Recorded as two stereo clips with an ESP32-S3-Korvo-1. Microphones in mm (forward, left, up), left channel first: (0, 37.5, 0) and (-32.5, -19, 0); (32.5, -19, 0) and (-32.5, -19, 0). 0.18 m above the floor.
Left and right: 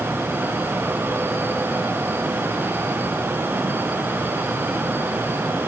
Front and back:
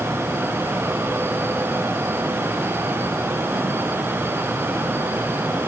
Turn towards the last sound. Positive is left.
No sound to turn to.